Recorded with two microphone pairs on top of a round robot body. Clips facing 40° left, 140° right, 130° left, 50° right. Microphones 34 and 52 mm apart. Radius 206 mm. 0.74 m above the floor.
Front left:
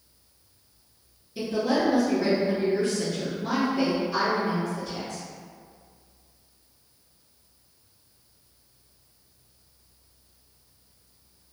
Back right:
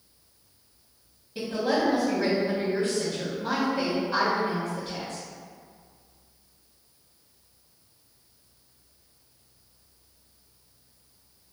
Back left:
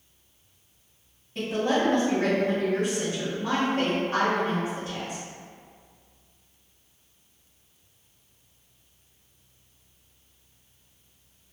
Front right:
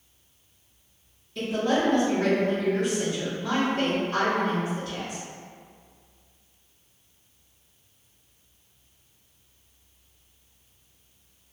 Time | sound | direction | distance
1.4 | a woman speaking | 175° right | 1.5 m